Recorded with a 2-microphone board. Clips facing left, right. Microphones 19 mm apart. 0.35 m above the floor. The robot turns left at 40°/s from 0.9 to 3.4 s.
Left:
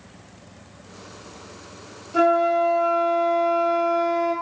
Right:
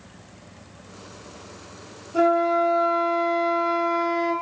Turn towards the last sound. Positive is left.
turn(degrees=-15)